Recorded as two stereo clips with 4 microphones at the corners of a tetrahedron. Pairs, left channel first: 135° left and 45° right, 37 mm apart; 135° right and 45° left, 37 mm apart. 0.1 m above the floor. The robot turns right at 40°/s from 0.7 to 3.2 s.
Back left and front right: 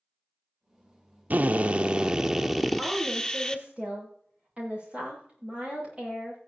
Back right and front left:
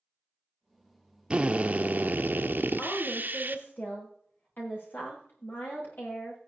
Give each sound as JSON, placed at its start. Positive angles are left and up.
{"t": 1.3, "sound": "a drill", "azimuth_deg": -15, "distance_m": 0.9}
{"t": 2.8, "sound": "a woman speaking", "azimuth_deg": -120, "distance_m": 7.5}